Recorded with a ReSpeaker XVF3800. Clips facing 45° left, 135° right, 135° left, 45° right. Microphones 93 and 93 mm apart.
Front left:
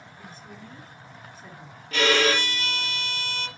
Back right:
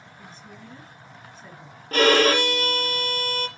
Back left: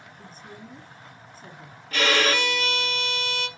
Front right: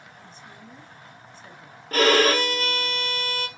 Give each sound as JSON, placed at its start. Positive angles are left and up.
{"t": 0.2, "sound": "a woman speaking", "azimuth_deg": 130, "distance_m": 1.3}
{"t": 1.9, "sound": "a violin", "azimuth_deg": -90, "distance_m": 0.7}